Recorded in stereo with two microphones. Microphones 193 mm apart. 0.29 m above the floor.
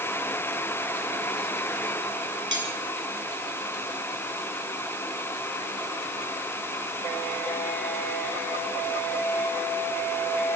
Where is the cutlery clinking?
75° right (ahead or behind), 3.5 m.